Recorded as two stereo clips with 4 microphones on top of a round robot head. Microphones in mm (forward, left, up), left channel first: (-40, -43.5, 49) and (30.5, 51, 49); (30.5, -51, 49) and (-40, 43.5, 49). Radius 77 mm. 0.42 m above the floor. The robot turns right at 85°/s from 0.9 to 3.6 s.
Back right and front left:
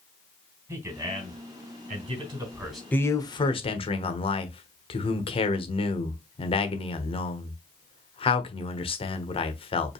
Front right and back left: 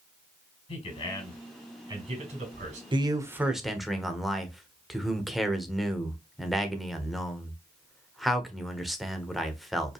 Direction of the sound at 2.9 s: 160° left.